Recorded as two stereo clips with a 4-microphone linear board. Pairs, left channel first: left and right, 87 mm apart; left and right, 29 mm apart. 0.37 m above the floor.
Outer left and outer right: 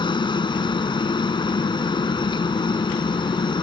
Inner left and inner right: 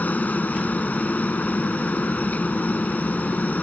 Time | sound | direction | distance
0.0 | a helicopter | 60° left (ahead or behind) | ?